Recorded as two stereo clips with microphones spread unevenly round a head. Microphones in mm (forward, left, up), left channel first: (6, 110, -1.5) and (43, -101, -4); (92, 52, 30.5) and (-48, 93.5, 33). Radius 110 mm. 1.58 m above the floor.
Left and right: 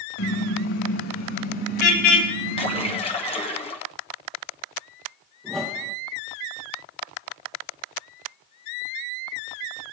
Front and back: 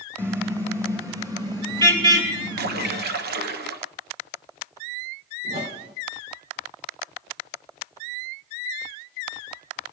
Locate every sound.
0.2 s a car horn: 90° left, 4.5 m; by 2.9 s 110° left, 6.5 m
2.6 s a splash: 165° left, 1.2 m
5.4 s a whoosh: 170° right, 2.5 m